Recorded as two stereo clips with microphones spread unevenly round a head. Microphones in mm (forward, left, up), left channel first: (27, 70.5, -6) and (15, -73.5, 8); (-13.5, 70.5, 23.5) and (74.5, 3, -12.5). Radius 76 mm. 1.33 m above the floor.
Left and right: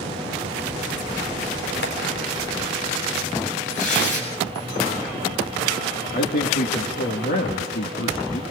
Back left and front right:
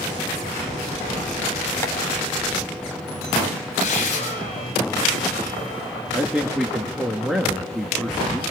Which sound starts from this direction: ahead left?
A man speaking, at 6.1 s.